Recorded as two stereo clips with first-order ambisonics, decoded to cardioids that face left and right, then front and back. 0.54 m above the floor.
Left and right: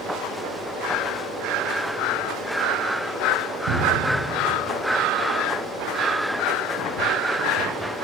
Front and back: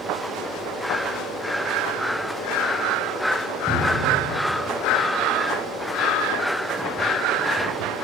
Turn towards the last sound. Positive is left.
turn(degrees=-90)